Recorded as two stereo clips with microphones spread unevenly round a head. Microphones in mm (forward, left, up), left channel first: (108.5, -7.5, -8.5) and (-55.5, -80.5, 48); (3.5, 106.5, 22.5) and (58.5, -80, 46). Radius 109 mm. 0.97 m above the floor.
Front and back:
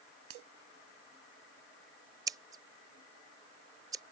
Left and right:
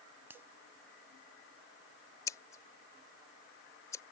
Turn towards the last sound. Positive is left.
turn(degrees=-175)